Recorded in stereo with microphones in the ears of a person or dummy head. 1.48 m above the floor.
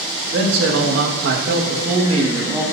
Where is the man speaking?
70° right (ahead or behind), 2 m; by 2.6 s 20° right (ahead or behind), 2 m.